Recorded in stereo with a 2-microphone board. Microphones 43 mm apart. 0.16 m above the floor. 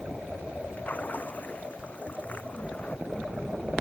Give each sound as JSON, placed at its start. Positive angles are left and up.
{"t": 0.8, "sound": "a splash", "side_deg": 40}